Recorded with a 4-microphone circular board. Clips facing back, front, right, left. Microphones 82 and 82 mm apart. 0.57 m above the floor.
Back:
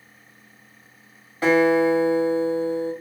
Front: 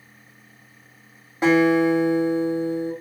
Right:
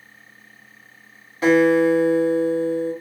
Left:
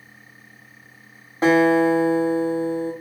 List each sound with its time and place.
1.4 s a guitar: 65° left, 1.4 m